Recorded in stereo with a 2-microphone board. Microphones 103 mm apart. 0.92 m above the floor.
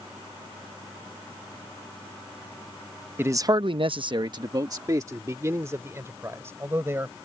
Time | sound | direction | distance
3.2 | a man speaking | 20° right (ahead or behind) | ?